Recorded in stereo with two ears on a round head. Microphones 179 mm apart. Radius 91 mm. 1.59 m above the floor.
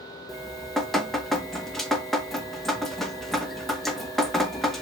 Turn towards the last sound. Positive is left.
turn(degrees=0)  # may be behind; listen again after turning